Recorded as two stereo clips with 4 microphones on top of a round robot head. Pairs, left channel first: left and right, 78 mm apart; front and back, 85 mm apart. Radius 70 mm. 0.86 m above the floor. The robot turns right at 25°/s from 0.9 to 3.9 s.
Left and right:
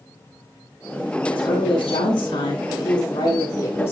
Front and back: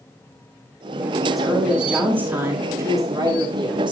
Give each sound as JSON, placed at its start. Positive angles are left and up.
{"t": 1.3, "sound": "a woman speaking", "azimuth_deg": 90, "distance_m": 7.0}